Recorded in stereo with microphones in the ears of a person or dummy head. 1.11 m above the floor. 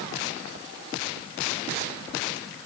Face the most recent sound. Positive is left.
No sound to turn to.